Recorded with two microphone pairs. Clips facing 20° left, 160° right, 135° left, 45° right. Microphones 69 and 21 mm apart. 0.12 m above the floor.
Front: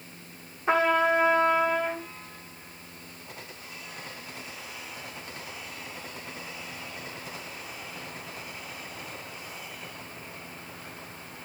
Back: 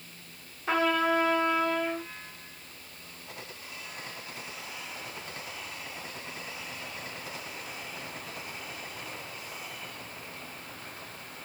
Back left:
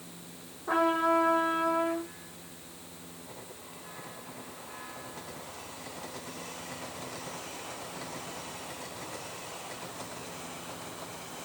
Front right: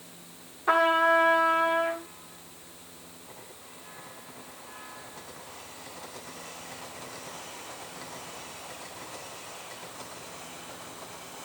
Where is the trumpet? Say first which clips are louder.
Front 3 dB, front right 4 dB; 50° right, 4 m.